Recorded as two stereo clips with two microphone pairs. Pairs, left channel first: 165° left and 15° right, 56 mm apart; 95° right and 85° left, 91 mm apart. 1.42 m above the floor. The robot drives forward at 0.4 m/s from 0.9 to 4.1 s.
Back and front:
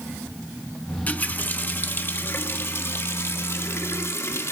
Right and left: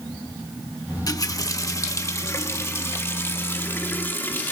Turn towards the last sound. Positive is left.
turn(degrees=-160)